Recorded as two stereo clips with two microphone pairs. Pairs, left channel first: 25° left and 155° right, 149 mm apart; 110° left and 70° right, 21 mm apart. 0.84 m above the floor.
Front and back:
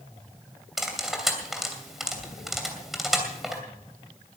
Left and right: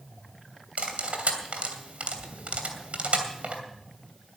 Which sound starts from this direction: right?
Cutlery clinking, at 0.8 s.